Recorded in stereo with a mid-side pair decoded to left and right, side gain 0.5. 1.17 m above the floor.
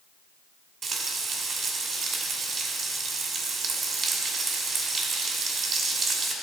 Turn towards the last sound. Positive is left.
turn(degrees=-40)